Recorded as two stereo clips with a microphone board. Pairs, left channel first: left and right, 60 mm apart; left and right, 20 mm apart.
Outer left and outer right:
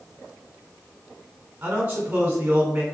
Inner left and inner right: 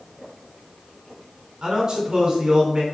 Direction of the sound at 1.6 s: 25° right (ahead or behind).